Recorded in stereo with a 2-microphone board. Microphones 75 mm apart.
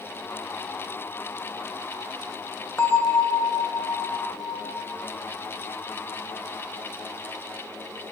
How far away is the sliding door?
I don't hear a sliding door.